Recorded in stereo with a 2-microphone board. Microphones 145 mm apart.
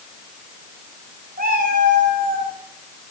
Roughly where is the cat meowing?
Right.